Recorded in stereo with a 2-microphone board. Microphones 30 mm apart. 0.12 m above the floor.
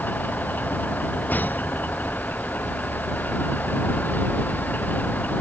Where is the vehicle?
90° left.